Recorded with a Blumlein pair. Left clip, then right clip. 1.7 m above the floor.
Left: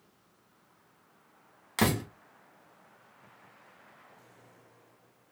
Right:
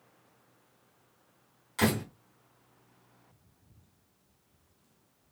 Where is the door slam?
65° left, 1.6 m.